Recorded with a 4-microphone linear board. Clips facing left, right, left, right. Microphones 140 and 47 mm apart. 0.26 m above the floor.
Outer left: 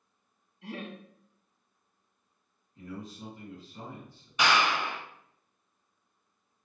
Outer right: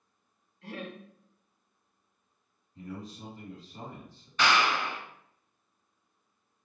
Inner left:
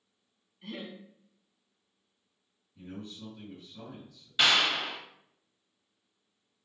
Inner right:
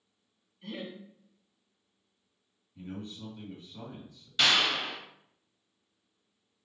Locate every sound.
0.6 s laughter: 15° left (ahead or behind), 1.3 m
2.8 s a man speaking: 35° right (ahead or behind), 1.6 m
4.4 s a clap: 15° left (ahead or behind), 0.8 m